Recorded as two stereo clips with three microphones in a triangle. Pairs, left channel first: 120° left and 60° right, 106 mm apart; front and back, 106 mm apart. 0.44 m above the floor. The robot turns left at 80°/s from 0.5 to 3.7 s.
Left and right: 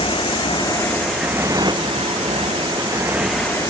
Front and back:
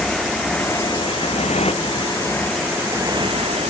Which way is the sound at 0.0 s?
85° left.